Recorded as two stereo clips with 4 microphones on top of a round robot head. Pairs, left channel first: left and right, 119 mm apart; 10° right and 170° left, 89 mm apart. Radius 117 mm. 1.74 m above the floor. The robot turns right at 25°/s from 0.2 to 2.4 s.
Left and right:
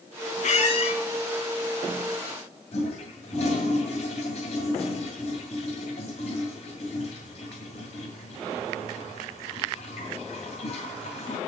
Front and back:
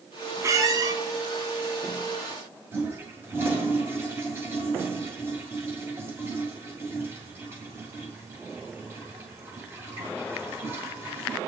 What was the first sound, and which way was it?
A squeak, 115° left.